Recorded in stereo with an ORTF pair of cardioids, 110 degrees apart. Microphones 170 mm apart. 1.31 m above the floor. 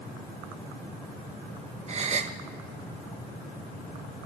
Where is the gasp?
40° right, 1.9 m.